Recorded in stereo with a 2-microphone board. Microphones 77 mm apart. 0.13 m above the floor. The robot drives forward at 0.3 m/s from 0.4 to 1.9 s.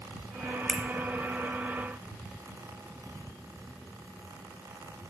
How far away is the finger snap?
About 1.8 m.